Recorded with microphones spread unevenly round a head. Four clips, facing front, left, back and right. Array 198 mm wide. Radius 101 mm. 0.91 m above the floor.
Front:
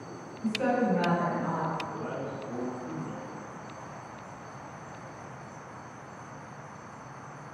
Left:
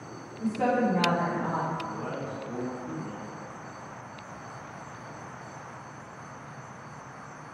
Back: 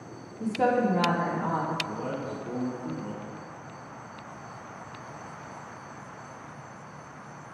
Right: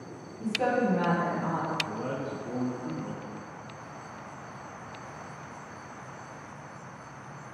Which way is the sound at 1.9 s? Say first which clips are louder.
Right 1 dB, back 2 dB; 140° right.